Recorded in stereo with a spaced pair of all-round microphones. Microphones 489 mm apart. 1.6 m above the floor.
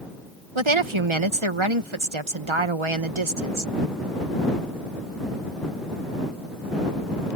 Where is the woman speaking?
70° right (ahead or behind).